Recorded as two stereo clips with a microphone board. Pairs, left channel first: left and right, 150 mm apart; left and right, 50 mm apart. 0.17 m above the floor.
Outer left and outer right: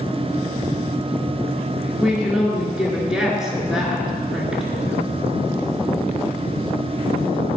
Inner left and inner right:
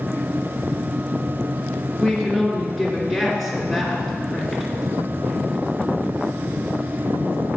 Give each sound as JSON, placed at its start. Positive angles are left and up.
{"t": 2.0, "sound": "a woman speaking", "side_deg": -5, "distance_m": 3.0}